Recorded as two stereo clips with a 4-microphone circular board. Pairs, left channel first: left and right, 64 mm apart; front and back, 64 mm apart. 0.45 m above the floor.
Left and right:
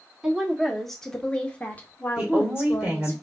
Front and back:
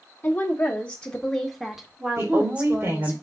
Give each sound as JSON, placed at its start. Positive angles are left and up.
{"t": 0.2, "sound": "a woman speaking", "azimuth_deg": -15, "distance_m": 1.2}
{"t": 2.2, "sound": "a woman speaking", "azimuth_deg": -160, "distance_m": 1.9}